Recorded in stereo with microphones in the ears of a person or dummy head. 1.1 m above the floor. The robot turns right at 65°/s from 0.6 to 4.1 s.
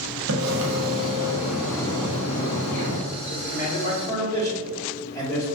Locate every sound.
0.3 s a splash: 65° right, 1.2 m; by 3.0 s 90° left, 1.2 m
3.3 s a man speaking: 105° left, 2 m; by 5.5 s 160° left, 2 m